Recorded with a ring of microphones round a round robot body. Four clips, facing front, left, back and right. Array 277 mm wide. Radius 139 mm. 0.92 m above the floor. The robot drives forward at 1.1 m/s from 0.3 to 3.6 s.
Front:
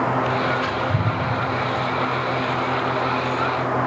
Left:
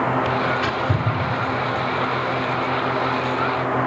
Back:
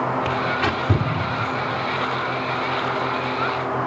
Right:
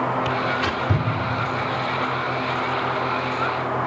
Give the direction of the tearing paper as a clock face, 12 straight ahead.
6 o'clock.